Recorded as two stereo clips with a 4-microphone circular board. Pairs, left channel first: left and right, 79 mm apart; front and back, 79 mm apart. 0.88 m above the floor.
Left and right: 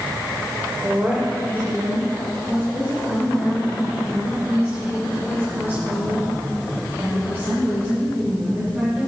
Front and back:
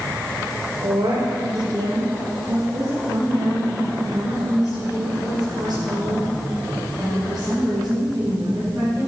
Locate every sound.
0.8 s a woman speaking: 160° right, 3 m; by 9.1 s 140° right, 14.5 m